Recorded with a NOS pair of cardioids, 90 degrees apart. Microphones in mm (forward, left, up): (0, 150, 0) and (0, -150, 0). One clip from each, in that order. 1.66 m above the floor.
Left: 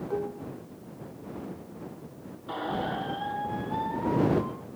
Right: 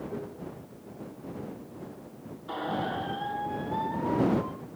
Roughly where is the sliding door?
No sliding door in this recording.